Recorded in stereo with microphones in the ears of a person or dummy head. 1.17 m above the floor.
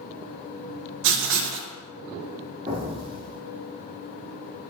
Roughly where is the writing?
Right.